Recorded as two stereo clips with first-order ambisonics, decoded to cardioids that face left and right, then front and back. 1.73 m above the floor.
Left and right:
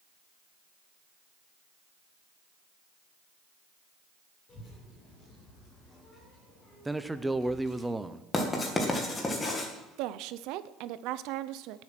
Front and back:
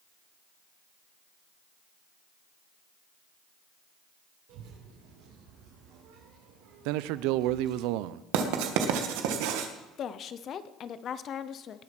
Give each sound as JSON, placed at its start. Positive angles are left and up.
{"t": 4.5, "sound": "a child speaking", "azimuth_deg": 160, "distance_m": 4.0}
{"t": 6.8, "sound": "a man speaking", "azimuth_deg": -175, "distance_m": 0.6}
{"t": 8.3, "sound": "writing", "azimuth_deg": 165, "distance_m": 1.9}
{"t": 10.0, "sound": "a woman speaking", "azimuth_deg": -60, "distance_m": 0.8}